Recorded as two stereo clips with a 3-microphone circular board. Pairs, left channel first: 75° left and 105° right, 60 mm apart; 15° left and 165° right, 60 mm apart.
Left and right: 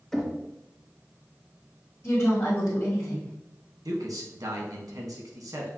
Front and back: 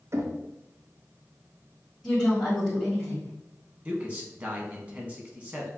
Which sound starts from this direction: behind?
Knocking, at 0.1 s.